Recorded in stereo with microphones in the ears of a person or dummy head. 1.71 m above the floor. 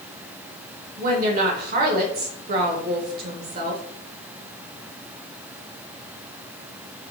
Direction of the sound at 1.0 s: 60° right (ahead or behind).